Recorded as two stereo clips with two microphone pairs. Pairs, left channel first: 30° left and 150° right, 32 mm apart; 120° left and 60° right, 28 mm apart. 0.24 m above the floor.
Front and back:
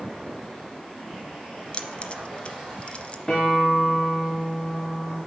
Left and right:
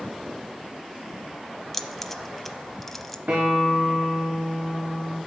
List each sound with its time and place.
1.7 s keys jangling: 40° left, 0.7 m
3.3 s a guitar: 40° right, 3.5 m